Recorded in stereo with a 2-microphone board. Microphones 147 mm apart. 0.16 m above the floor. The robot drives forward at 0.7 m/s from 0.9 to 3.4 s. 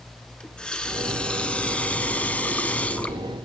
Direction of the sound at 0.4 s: 5° left (ahead or behind).